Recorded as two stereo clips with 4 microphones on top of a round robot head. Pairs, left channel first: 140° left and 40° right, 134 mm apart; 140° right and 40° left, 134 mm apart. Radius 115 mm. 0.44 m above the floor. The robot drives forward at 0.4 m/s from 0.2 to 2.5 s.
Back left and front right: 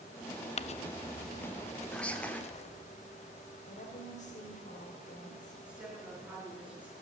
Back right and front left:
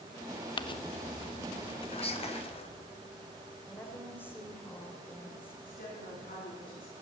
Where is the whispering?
140° right, 1.8 m; by 2.4 s 145° right, 1.9 m.